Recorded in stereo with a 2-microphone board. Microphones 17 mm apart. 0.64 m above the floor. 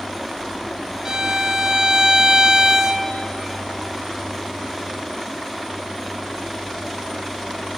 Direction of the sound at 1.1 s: 35° right (ahead or behind).